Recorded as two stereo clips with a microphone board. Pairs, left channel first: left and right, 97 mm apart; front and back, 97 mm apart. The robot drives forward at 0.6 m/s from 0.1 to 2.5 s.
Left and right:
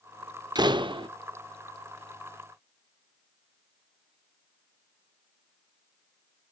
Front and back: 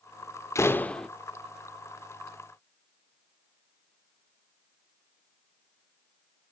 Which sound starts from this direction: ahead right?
A door slam, at 0.6 s.